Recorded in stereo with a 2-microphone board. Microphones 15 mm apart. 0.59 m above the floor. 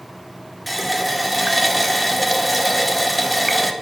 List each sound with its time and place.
0.7 s a running tap: 5° left (ahead or behind), 0.6 m